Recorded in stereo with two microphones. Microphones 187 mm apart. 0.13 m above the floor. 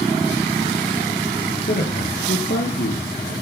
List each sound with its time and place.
1.7 s a man speaking: 60° left (ahead or behind), 3 m